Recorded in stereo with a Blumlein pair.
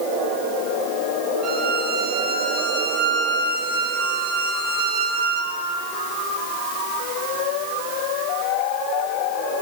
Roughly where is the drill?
No drill in this recording.